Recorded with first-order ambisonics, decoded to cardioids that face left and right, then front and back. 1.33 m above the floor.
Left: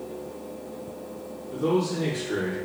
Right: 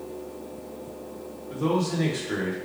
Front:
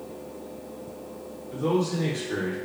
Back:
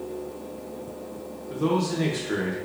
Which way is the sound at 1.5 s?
150° right.